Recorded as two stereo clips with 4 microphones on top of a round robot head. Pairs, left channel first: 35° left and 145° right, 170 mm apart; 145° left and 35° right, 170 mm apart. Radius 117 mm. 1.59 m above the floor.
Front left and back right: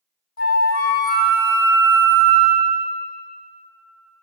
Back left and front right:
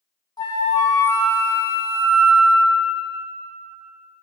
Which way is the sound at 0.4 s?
75° left.